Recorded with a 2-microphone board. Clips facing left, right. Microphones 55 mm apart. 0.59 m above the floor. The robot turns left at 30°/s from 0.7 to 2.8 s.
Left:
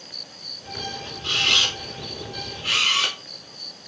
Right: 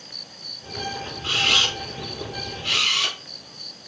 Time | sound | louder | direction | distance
1.2 | a camera shutter | right 1 dB | 20° right (ahead or behind) | 0.9 m